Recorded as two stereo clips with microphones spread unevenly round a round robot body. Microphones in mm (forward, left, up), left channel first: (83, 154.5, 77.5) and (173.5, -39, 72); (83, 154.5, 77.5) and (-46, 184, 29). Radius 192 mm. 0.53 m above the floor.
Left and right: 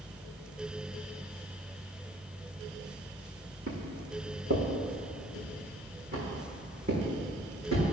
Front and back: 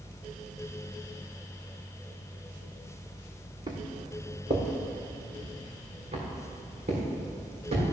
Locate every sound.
3.7 s footsteps: 120° right, 1.6 m; by 7.8 s 140° right, 5 m